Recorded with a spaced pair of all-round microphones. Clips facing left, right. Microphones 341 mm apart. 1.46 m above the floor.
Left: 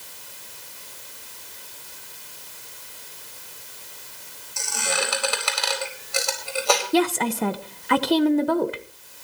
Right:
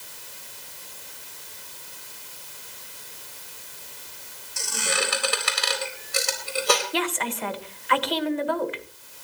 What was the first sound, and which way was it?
A squeak, 25° right (ahead or behind).